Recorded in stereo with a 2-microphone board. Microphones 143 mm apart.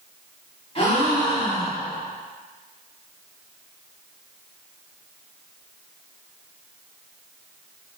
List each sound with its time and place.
0.8 s a gasp: 40° left (ahead or behind), 1.1 m